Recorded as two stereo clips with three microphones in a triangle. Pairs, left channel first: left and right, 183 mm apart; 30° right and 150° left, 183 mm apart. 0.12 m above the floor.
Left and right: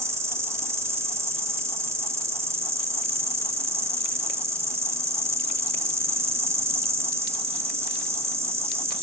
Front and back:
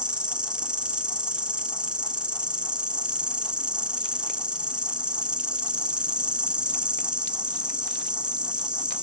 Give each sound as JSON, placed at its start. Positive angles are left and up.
{"t": 0.0, "sound": "an insect", "azimuth_deg": -135, "distance_m": 1.1}